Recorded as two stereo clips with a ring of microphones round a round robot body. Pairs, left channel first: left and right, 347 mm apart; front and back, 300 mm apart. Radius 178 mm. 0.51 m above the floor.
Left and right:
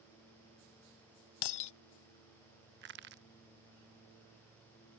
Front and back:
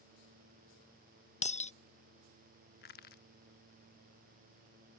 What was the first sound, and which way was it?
Breaking glass, 70° left.